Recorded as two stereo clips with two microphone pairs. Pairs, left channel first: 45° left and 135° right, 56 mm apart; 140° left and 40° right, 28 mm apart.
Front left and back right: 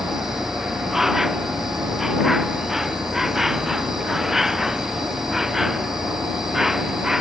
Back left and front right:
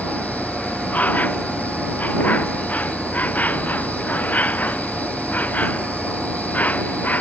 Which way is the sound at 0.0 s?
140° left.